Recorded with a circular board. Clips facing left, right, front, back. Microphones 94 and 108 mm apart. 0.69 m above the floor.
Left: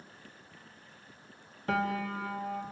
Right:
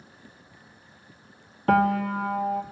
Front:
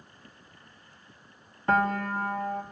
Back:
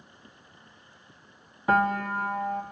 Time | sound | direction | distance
1.7 | a piano | 95° right | 0.9 m